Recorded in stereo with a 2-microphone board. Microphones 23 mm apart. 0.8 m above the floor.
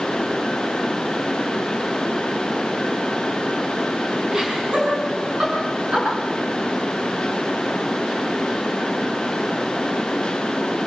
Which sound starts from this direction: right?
Laughter, at 4.3 s.